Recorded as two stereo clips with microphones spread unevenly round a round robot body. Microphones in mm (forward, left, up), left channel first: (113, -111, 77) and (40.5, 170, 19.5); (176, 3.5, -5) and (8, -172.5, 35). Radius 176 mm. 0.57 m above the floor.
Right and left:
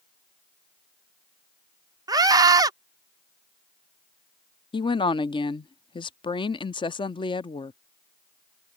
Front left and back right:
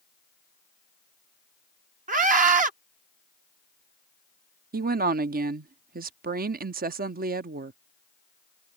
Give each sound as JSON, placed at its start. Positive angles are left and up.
{"t": 2.1, "sound": "a scream", "azimuth_deg": 165}
{"t": 4.7, "sound": "a woman speaking", "azimuth_deg": -155}